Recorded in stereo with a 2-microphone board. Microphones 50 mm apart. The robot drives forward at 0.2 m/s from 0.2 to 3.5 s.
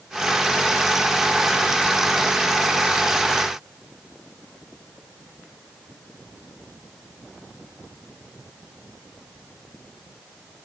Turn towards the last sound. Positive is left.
No sound to turn to.